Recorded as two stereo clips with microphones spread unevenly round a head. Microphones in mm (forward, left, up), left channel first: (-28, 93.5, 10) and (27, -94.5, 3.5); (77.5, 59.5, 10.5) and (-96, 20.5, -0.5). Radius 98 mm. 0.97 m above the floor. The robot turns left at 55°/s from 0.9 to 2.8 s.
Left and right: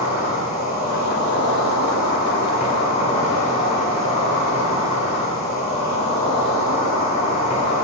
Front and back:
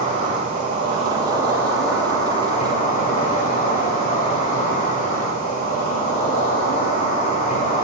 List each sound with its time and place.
0.0 s an insect: 155° left, 1.8 m; by 7.9 s 50° left, 1.8 m